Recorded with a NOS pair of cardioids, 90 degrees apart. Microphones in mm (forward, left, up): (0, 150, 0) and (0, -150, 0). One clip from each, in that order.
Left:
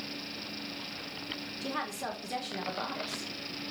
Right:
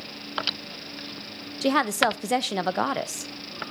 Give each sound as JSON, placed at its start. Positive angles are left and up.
{"t": 1.6, "sound": "a woman speaking", "azimuth_deg": -65, "distance_m": 0.7}